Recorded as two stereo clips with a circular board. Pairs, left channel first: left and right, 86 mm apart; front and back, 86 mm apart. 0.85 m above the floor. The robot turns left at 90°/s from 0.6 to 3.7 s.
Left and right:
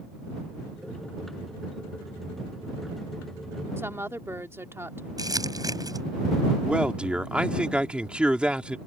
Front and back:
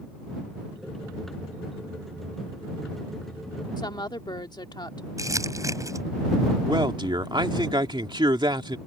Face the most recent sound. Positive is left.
turn(degrees=-165)